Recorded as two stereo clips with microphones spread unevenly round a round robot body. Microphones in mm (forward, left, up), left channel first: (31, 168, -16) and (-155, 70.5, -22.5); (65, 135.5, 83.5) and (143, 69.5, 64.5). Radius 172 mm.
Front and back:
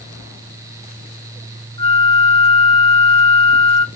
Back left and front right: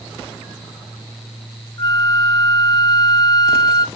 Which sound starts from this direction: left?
A flute, at 1.8 s.